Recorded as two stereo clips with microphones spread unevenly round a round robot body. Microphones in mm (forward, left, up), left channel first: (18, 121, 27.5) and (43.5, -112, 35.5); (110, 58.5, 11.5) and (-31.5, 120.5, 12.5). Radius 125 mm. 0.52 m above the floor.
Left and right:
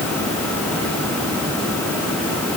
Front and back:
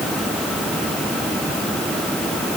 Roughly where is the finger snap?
No finger snap in this recording.